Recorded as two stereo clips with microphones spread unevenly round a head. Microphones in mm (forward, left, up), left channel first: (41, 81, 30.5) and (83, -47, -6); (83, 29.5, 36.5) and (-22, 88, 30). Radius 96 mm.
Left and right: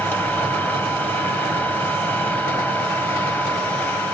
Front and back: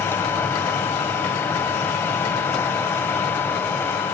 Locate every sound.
0.0 s a machine running: 40° left, 2.5 m